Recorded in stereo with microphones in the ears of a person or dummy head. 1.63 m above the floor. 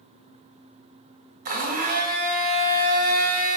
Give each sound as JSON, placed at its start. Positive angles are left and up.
{"t": 1.4, "sound": "a blender", "side_deg": -45, "distance_m": 0.5}